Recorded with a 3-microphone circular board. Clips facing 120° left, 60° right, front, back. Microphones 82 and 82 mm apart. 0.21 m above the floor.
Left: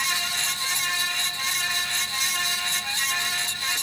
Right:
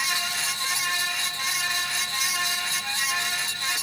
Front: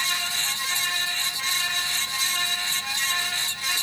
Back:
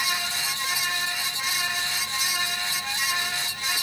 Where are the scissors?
No scissors in this recording.